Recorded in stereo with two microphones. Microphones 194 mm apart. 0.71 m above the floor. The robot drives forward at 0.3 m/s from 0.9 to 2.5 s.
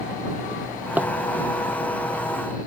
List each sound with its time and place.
0.5 s a drawer: 10° right (ahead or behind)